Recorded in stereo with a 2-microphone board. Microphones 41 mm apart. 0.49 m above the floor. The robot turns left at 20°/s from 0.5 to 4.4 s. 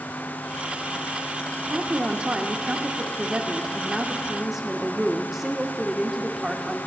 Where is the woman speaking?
110° right, 0.7 m; by 6.8 s 165° right, 0.7 m.